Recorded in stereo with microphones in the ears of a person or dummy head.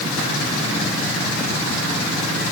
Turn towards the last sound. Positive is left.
No sound to turn to.